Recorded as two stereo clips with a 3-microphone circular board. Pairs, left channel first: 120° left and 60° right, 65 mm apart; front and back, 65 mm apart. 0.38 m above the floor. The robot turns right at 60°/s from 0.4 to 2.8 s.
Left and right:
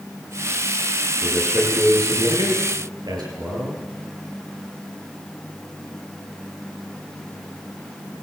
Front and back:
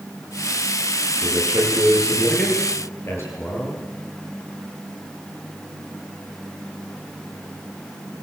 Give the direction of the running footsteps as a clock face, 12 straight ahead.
I don't hear running footsteps.